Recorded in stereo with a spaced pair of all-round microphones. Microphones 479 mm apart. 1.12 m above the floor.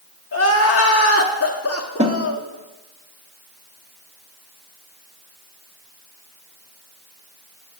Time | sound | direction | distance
0.3 | crying | 35° left (ahead or behind) | 0.8 m
2.0 | a snare drum | 15° right (ahead or behind) | 0.7 m